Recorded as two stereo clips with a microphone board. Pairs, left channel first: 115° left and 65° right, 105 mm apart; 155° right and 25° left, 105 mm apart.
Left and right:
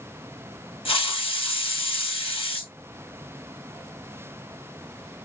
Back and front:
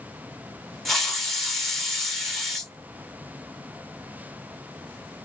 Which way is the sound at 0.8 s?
115° left.